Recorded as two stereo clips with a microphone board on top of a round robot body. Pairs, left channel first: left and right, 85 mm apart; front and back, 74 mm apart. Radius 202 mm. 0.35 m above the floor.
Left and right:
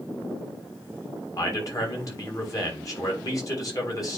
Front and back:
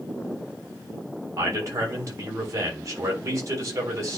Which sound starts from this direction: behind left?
A man speaking, at 1.4 s.